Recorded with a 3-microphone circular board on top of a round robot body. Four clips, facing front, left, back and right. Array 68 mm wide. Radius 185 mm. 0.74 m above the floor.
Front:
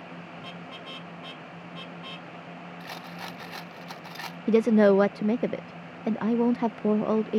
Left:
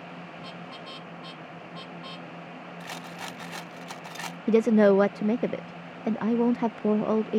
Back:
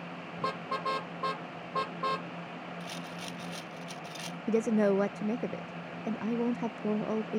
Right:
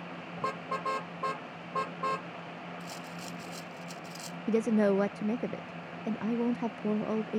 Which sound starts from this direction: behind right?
A car horn, at 0.4 s.